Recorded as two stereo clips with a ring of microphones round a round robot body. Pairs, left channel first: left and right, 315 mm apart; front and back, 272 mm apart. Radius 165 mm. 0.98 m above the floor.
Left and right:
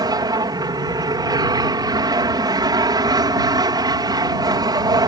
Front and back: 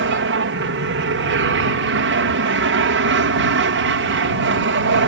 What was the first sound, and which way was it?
An aircraft, 165° right.